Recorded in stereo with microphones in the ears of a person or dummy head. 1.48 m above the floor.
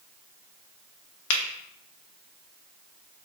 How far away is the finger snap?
About 1.1 m.